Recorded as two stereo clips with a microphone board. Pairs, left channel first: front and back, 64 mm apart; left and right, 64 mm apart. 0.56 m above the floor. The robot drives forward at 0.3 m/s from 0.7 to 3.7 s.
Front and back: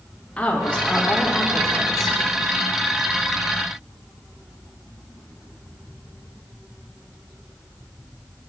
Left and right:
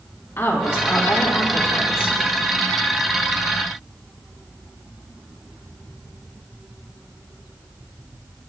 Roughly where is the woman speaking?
Ahead left.